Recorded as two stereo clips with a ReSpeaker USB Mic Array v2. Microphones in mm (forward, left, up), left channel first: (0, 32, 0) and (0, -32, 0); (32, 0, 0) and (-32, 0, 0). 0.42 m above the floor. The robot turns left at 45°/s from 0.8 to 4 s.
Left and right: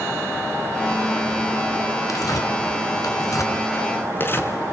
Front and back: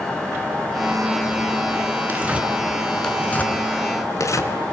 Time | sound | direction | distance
2.1 | tearing paper | 120° left | 3 m